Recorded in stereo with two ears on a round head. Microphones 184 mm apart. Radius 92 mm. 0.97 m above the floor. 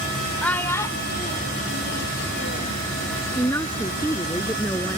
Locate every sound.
0.4 s a child speaking: 5° left (ahead or behind); by 2.8 s 65° left (ahead or behind)
3.4 s a woman speaking: 10° left (ahead or behind)